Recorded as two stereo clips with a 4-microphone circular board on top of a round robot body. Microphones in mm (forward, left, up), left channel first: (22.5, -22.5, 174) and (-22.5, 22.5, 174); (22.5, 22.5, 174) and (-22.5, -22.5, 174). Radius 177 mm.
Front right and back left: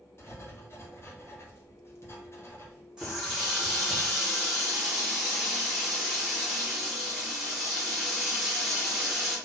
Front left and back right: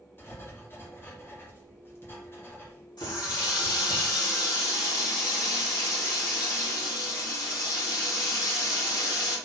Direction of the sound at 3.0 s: 55° left.